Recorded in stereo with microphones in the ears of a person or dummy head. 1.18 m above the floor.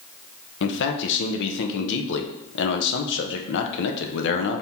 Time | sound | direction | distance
0.6 | a man speaking | 60° left (ahead or behind) | 0.8 m